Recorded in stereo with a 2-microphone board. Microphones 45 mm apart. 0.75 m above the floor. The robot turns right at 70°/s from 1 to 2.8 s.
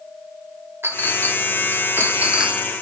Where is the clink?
55° right (ahead or behind), 0.7 m; by 2.6 s 10° right (ahead or behind), 0.7 m.